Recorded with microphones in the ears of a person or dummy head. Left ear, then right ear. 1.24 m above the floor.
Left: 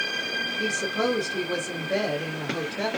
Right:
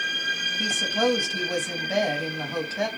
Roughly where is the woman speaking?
Right.